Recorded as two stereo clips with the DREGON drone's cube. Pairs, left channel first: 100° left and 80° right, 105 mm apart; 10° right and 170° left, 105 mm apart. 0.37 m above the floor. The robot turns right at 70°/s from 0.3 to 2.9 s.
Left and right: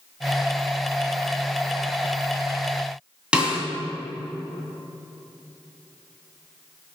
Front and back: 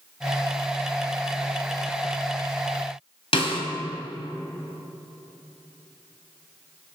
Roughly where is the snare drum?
Ahead.